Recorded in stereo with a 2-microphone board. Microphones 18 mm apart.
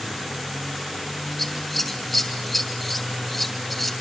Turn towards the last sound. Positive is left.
turn(degrees=5)  # may be behind; listen again after turning